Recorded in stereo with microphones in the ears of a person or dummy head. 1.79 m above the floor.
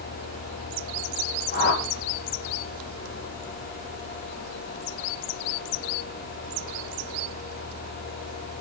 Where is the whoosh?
70° left (ahead or behind), 4 m.